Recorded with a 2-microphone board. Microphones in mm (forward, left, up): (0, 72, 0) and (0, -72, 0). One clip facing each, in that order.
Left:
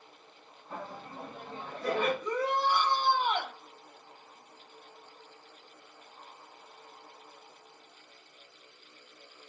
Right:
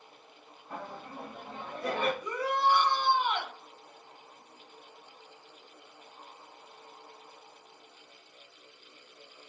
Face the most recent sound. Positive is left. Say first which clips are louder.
# even
turn(degrees=35)  # may be behind; listen again after turning